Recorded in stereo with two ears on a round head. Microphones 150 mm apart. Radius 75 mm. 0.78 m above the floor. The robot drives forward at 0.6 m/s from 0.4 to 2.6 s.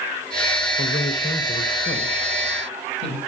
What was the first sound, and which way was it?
A man speaking, 60° left (ahead or behind).